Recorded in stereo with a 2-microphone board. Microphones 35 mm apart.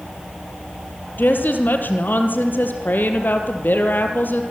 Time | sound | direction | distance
1.2 | a woman speaking | 70° left (ahead or behind) | 3 m